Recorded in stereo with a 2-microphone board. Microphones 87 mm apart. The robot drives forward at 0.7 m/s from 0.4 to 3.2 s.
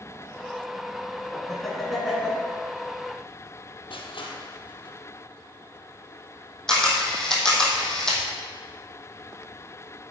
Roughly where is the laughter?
Centre.